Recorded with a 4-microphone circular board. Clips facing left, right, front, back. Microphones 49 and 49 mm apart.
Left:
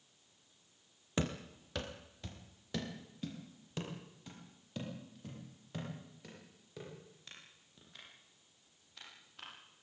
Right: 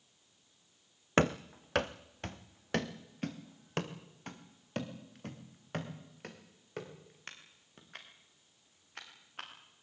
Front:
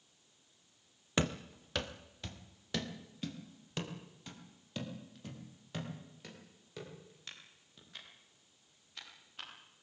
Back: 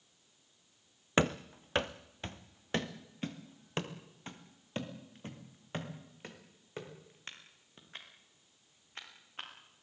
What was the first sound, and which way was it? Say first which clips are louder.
Running footsteps: right 9 dB, back 4 dB; 120° right.